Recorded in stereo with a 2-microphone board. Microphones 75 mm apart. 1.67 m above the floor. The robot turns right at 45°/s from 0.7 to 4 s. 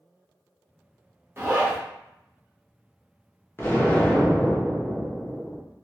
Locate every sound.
1.4 s a zipper: 30° right (ahead or behind), 0.7 m; by 1.8 s 15° right (ahead or behind), 0.7 m
3.6 s an explosion: 30° left (ahead or behind), 0.6 m; by 5.6 s 20° left (ahead or behind), 0.6 m